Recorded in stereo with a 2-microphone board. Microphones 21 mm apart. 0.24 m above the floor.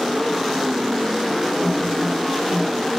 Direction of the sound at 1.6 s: 55° left (ahead or behind).